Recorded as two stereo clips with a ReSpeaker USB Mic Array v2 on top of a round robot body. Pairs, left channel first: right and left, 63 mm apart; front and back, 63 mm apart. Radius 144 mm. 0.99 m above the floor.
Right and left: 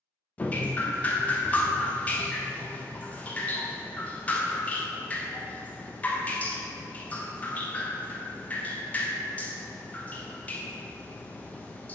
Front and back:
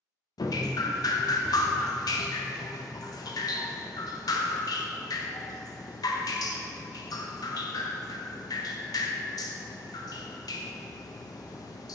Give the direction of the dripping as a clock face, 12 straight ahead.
1 o'clock.